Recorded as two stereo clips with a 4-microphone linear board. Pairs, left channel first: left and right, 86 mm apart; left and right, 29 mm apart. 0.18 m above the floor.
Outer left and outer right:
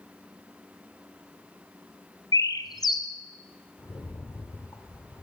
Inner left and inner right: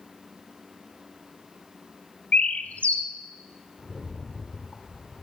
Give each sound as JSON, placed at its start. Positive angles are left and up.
{"t": 2.3, "sound": "a bird", "side_deg": 50, "distance_m": 0.8}
{"t": 3.8, "sound": "a rattle", "side_deg": 25, "distance_m": 2.0}